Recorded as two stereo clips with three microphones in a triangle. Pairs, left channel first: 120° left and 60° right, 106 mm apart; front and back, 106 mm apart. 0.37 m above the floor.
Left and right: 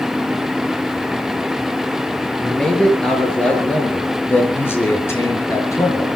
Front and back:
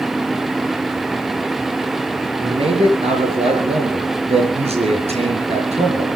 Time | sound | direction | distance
2.4 | a man speaking | 155° right | 6 m